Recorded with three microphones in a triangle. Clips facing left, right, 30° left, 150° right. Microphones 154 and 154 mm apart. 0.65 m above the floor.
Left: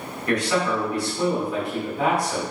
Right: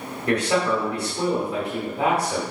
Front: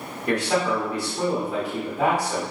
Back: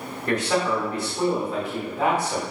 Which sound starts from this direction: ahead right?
A man speaking, at 0.3 s.